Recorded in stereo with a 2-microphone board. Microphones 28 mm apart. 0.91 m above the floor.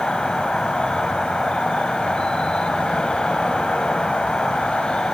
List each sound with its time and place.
0.0 s an insect: 35° left (ahead or behind), 4 m